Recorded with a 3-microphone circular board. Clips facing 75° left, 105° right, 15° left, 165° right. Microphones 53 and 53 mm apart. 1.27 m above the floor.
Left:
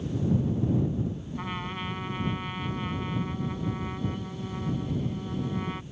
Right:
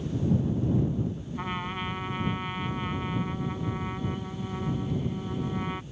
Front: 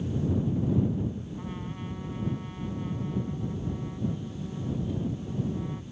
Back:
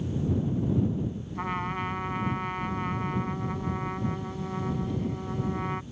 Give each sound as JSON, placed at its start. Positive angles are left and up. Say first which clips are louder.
{"t": 1.4, "sound": "a trumpet", "louder": "right 3 dB, back 7 dB", "azimuth_deg": 175}